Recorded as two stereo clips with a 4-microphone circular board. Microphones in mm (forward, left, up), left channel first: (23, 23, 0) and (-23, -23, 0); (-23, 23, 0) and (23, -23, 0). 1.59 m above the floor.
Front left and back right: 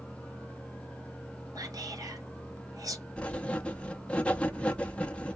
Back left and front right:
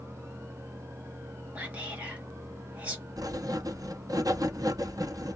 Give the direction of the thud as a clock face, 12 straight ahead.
No thud in this recording.